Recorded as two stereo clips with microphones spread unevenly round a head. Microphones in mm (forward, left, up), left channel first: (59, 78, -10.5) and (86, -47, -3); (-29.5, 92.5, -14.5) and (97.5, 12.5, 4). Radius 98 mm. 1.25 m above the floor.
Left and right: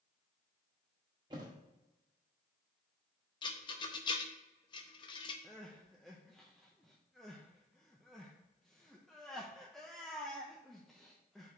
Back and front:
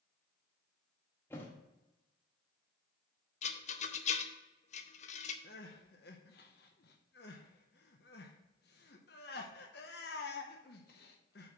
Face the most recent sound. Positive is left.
turn(degrees=-170)